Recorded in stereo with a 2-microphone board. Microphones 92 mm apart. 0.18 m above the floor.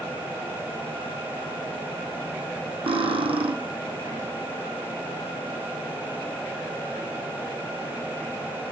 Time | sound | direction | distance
2.9 | cutlery clinking | 80° right | 4 m